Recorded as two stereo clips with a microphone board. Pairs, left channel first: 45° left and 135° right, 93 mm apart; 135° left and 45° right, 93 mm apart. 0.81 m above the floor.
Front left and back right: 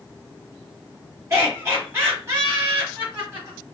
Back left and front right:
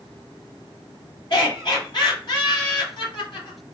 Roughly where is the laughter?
Behind.